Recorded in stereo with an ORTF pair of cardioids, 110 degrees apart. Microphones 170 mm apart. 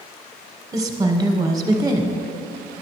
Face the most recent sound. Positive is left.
turn(degrees=-20)